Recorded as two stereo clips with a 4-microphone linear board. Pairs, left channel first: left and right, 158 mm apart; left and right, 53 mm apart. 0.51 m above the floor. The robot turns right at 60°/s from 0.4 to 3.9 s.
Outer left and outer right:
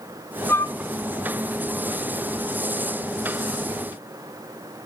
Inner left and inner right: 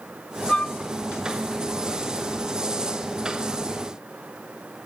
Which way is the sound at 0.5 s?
15° left (ahead or behind).